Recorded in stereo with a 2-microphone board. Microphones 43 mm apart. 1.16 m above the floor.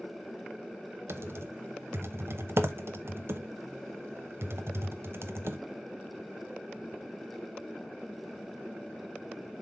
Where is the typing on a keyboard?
80° right, 0.8 m.